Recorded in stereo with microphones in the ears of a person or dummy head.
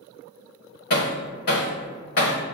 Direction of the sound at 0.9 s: 55° left (ahead or behind).